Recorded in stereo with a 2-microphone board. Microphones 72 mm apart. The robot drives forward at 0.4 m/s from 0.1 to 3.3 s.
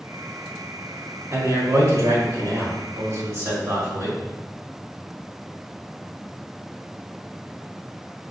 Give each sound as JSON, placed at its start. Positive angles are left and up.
{"t": 1.3, "sound": "a man speaking", "side_deg": -45, "distance_m": 2.0}